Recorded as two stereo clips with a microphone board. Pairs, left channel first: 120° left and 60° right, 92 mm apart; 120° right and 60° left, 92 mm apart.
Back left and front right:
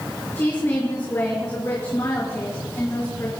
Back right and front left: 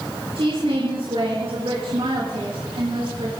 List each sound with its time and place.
0.3 s a woman speaking: 70° left, 4.5 m